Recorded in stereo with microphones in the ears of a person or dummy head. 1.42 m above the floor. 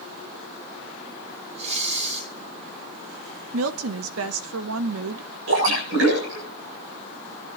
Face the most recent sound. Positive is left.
turn(degrees=-75)  # may be behind; listen again after turning